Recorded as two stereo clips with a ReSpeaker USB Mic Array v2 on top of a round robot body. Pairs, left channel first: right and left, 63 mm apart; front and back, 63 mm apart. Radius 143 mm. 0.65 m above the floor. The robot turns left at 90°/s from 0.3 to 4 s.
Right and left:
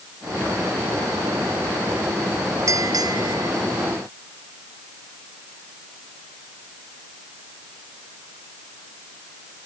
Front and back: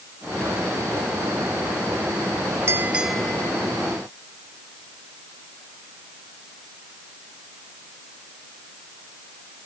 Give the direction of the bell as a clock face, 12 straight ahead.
8 o'clock.